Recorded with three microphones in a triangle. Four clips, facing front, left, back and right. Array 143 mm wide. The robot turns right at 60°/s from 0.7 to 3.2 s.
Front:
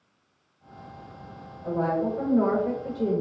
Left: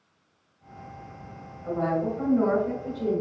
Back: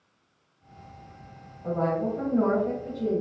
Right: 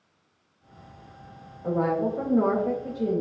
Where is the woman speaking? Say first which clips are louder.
Right 2 dB, front 1 dB; 115° right, 1.1 m; by 3.2 s 20° right, 1.1 m.